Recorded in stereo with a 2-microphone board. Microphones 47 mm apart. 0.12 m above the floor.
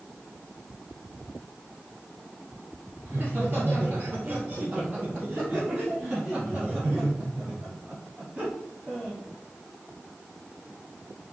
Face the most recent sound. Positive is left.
turn(degrees=-30)  # may be behind; listen again after turning